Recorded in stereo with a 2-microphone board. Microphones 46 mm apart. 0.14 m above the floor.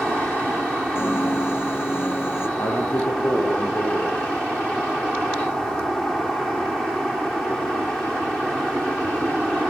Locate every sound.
0.9 s a piano: 60° left (ahead or behind), 1.3 m
2.6 s a man speaking: 65° left (ahead or behind), 4 m